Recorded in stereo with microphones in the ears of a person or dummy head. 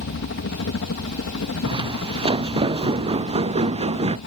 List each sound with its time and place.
0.0 s a helicopter: 60° left (ahead or behind)
1.6 s footsteps: 25° right (ahead or behind); by 4.2 s 30° right (ahead or behind)